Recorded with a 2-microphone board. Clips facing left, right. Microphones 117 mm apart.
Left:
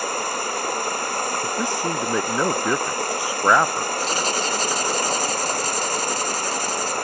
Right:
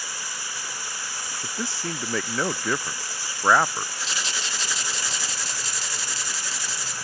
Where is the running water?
60° left (ahead or behind).